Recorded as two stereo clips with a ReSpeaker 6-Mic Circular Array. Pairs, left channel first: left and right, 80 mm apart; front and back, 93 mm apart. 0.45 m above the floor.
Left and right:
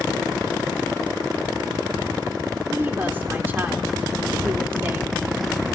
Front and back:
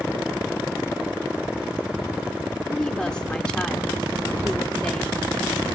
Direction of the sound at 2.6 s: 65° right.